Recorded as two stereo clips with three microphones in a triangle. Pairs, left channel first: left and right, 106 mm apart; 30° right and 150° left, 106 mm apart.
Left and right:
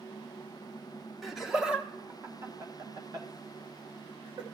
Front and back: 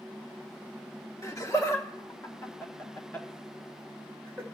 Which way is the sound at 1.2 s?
Straight ahead.